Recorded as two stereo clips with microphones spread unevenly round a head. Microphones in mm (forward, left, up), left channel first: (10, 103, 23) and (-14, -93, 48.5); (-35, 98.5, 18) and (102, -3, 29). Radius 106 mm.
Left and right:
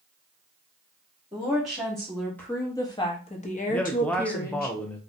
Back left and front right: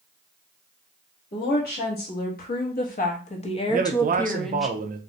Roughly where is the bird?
No bird in this recording.